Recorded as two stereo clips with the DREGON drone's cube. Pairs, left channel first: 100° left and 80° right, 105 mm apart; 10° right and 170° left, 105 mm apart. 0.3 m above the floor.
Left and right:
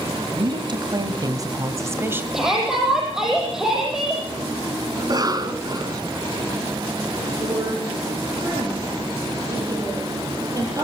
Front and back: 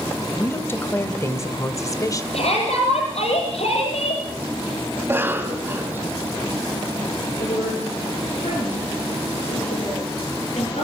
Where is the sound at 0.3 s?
75° right, 2 m; by 2.2 s 30° right, 1.6 m.